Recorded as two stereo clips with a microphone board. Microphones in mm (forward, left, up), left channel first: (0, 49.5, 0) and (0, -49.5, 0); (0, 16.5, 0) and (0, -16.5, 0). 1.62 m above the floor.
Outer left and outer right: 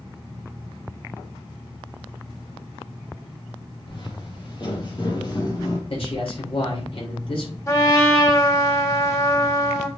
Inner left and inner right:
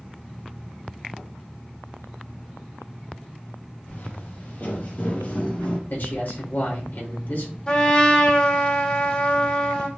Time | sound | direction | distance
3.9 | footsteps | 55° left (ahead or behind) | 2.5 m
5.9 | a man speaking | 65° left (ahead or behind) | 3.5 m
7.7 | a trumpet | 30° left (ahead or behind) | 2 m